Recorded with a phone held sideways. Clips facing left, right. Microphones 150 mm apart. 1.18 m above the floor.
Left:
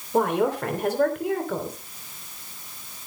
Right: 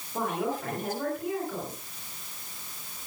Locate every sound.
0.1 s a woman speaking: 70° left (ahead or behind), 3.5 m